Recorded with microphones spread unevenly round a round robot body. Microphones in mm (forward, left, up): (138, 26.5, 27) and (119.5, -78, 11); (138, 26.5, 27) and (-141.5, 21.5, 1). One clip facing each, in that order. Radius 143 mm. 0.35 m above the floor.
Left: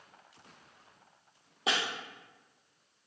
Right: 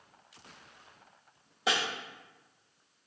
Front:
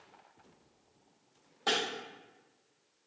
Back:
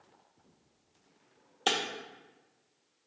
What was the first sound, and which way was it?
Breaking glass, 150° left.